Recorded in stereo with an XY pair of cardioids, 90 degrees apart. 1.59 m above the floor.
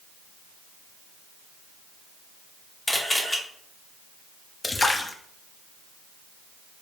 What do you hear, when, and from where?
2.9 s a camera shutter: 20° left, 1.1 m
4.6 s a splash: 30° left, 0.6 m